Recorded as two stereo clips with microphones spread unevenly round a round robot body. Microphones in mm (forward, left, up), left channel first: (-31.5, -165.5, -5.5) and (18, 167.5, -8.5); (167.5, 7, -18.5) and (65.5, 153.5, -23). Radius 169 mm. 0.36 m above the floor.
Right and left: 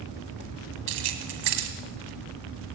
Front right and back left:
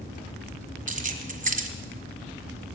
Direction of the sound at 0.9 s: 85° left.